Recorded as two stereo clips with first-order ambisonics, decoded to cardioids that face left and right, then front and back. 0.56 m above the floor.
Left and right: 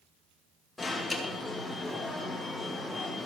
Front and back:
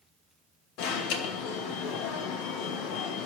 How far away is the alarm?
About 2 m.